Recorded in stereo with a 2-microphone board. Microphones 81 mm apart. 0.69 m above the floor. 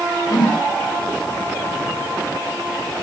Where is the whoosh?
70° left (ahead or behind), 1.3 m.